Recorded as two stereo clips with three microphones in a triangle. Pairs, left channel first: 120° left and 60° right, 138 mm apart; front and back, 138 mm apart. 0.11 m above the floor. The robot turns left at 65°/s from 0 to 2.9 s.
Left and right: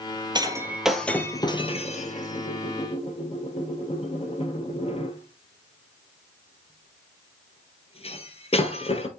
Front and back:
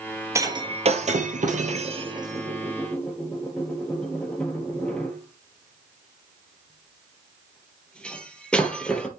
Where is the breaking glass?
115° right, 1.3 m; by 9.1 s 80° left, 1.3 m.